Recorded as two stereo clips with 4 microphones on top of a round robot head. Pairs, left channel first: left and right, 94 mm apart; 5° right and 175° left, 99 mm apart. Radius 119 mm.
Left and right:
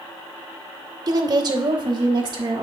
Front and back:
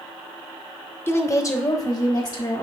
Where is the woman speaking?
65° right, 0.9 m; by 2.6 s 50° right, 1.8 m.